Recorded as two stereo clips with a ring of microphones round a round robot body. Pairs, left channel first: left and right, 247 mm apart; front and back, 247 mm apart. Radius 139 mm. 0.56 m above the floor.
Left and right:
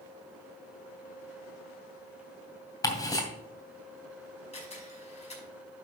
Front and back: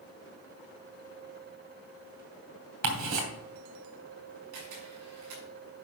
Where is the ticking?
165° left, 2.5 m.